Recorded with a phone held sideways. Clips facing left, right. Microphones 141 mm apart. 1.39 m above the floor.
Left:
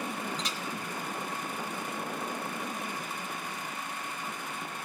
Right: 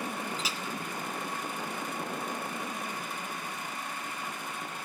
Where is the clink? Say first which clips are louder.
Even; 5° right (ahead or behind), 1.2 m.